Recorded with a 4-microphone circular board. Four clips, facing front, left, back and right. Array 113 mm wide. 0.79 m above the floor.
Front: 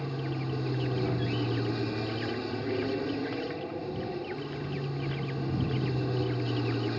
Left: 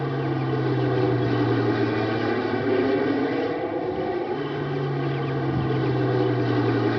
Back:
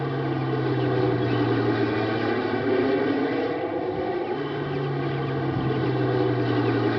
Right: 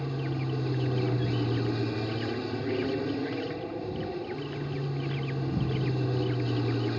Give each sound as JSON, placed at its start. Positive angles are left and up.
{"t": 0.0, "sound": "an aircraft", "azimuth_deg": 130}